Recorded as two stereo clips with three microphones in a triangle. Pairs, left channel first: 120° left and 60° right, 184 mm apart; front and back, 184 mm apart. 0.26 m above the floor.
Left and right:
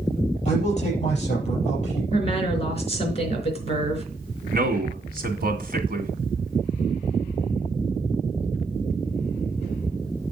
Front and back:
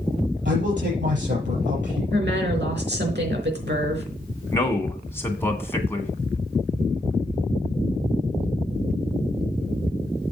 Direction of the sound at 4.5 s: 75° right.